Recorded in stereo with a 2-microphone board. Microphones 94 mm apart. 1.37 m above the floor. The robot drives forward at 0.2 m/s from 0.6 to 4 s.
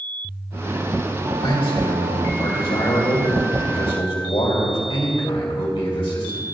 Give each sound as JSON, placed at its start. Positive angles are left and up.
{"t": 1.4, "sound": "a man speaking", "side_deg": 85, "distance_m": 2.5}